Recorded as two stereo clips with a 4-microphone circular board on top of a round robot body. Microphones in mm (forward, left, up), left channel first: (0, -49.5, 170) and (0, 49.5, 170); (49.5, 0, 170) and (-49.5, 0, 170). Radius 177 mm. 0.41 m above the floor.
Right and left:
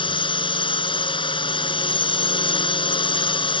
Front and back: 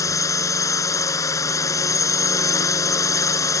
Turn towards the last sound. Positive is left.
turn(degrees=-55)